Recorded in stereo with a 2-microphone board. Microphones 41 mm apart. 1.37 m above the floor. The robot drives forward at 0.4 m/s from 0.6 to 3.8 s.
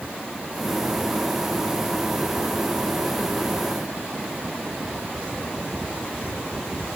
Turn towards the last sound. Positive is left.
No sound to turn to.